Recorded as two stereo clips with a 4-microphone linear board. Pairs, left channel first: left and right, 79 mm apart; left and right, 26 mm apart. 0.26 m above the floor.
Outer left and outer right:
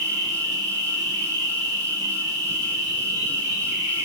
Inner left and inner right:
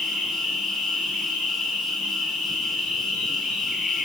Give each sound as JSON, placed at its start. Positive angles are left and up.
{"t": 0.0, "sound": "an insect", "side_deg": -50, "distance_m": 1.6}